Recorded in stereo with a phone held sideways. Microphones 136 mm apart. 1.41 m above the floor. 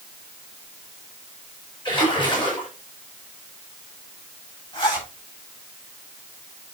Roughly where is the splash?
Left.